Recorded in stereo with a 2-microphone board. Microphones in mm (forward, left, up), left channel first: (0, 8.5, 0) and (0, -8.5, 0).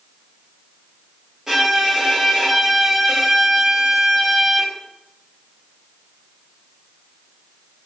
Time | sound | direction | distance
1.5 | a violin | 30° right (ahead or behind) | 1.1 m